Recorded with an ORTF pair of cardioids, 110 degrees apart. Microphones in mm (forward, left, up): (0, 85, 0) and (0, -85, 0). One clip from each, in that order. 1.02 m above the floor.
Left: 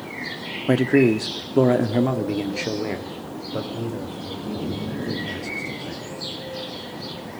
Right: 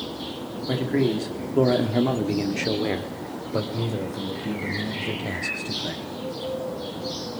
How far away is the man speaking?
About 2.0 m.